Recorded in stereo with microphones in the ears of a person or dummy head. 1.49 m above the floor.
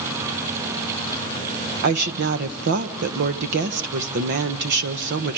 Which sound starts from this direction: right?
A woman speaking, at 1.8 s.